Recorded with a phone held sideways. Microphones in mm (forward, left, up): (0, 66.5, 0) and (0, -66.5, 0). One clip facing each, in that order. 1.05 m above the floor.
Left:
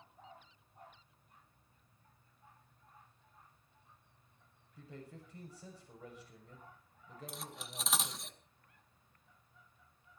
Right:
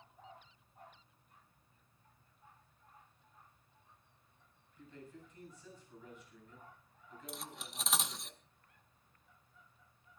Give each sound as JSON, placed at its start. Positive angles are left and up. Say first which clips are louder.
{"t": 4.8, "sound": "a man speaking", "louder": "left 2 dB", "side_deg": 80, "distance_m": 6.5}
{"t": 7.3, "sound": "cutlery clinking", "louder": "right 2 dB", "side_deg": 0, "distance_m": 0.7}